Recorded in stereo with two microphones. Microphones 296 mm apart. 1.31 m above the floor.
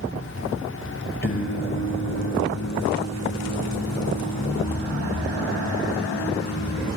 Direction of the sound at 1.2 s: 35° left (ahead or behind).